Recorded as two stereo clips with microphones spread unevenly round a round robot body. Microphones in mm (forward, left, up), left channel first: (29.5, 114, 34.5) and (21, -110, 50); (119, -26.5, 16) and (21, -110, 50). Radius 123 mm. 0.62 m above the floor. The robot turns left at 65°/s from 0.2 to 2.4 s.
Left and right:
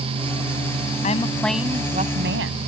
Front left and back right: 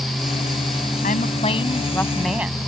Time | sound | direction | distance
1.0 | a woman speaking | 30° left | ?